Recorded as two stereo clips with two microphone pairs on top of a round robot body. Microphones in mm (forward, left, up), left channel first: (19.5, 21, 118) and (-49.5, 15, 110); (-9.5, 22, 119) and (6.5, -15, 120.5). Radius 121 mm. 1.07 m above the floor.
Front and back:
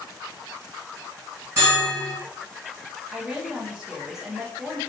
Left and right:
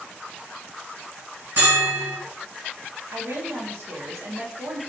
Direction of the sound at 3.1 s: 95° right.